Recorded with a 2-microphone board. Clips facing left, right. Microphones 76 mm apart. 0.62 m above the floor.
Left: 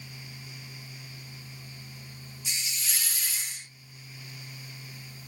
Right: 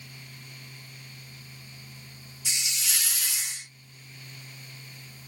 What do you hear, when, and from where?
2.5 s a hiss: 80° right, 1.0 m